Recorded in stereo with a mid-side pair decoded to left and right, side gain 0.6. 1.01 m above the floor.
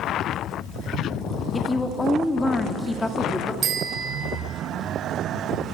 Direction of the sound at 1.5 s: 10° left.